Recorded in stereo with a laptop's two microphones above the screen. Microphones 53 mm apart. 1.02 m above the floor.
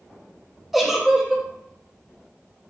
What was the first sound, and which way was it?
A giggle, 5° right (ahead or behind).